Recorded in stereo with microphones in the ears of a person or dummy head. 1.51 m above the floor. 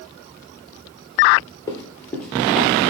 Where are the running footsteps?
15° left (ahead or behind), 1.8 m; by 2.7 s 5° right (ahead or behind), 1.7 m.